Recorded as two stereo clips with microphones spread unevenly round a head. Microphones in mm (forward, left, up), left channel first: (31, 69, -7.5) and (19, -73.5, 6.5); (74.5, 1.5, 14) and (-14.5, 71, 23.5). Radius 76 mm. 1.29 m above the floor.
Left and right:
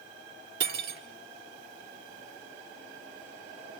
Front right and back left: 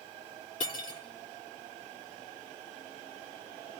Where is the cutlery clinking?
100° right, 1.9 m.